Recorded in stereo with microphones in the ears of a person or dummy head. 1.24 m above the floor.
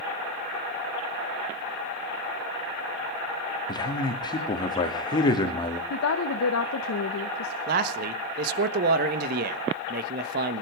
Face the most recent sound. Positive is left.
turn(degrees=-55)  # may be behind; listen again after turning